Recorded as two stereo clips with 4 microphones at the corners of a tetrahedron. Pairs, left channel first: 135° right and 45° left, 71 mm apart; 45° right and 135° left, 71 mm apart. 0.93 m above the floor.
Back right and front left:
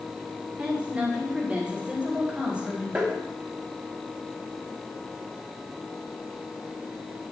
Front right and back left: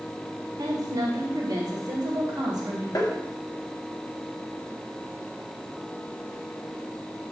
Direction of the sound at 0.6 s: 115° left.